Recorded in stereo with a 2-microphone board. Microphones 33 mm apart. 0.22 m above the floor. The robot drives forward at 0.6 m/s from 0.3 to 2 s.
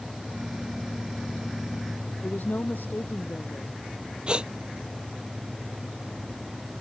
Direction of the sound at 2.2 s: 70° left (ahead or behind).